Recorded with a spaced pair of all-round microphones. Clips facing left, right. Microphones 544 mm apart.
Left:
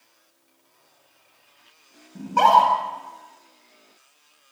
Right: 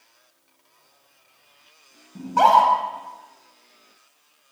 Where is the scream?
5° right (ahead or behind), 8.5 m.